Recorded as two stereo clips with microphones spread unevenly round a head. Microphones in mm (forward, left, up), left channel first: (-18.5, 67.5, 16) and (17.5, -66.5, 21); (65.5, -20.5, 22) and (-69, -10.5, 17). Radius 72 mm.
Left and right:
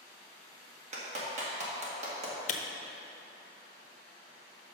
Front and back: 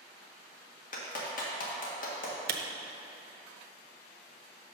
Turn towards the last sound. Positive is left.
turn(degrees=150)